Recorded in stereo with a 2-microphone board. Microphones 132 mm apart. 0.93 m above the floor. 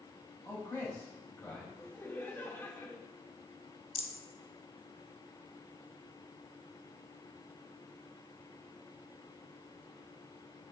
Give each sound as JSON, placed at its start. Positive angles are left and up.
{"t": 0.5, "sound": "a man speaking", "side_deg": 15, "distance_m": 6.5}
{"t": 1.8, "sound": "laughter", "side_deg": 20, "distance_m": 3.0}
{"t": 4.0, "sound": "a rattle", "side_deg": 45, "distance_m": 1.2}